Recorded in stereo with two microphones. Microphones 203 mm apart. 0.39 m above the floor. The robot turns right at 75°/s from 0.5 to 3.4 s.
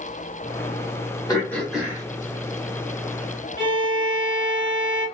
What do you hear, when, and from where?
1.3 s throat clearing: 150° left, 1.3 m; by 2.0 s 155° right, 1.3 m
3.6 s a violin: 60° right (ahead or behind), 1.7 m